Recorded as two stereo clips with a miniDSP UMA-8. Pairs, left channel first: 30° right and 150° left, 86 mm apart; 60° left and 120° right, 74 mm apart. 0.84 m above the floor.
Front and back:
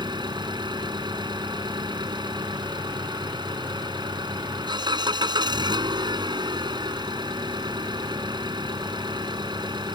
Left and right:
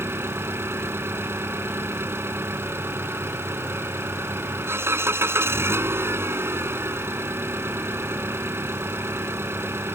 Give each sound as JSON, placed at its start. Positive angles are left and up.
{"t": 0.0, "sound": "an engine running", "azimuth_deg": 180}